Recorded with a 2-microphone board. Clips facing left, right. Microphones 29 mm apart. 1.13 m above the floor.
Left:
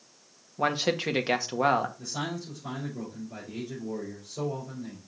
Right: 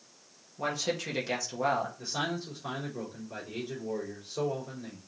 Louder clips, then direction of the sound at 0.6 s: Left 5 dB; 35° left (ahead or behind).